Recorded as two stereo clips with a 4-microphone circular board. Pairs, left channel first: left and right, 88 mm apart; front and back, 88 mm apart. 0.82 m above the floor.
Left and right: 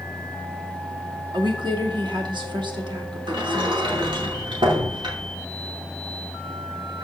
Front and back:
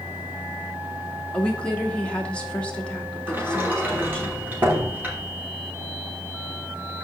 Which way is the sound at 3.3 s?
115° right.